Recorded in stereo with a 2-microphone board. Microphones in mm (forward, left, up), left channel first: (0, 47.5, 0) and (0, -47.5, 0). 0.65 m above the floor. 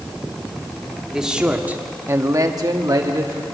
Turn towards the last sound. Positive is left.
turn(degrees=-35)  # may be behind; listen again after turning